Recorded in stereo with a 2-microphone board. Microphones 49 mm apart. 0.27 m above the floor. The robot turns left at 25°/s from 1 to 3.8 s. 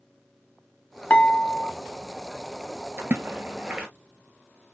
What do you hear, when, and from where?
1.1 s dishes clattering: 25° left (ahead or behind), 0.8 m; by 1.7 s 35° left (ahead or behind), 0.8 m
3.0 s a splash: 45° right (ahead or behind), 0.9 m; by 3.9 s 25° right (ahead or behind), 0.9 m